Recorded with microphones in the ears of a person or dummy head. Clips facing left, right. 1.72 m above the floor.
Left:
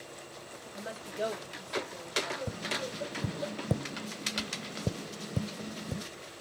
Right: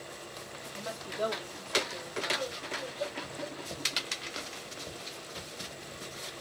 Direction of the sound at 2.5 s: 70° left (ahead or behind).